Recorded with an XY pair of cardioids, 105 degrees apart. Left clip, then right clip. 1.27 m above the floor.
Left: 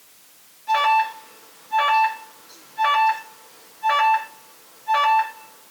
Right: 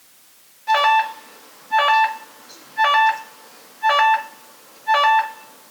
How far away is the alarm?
About 1.8 m.